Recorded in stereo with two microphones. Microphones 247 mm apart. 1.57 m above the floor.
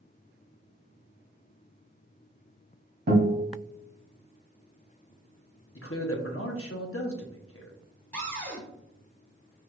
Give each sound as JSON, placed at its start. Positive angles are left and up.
{"t": 3.1, "sound": "a guitar", "side_deg": -45, "distance_m": 2.5}
{"t": 5.8, "sound": "a man speaking", "side_deg": 60, "distance_m": 0.9}
{"t": 8.1, "sound": "a cupboard door", "side_deg": 5, "distance_m": 1.7}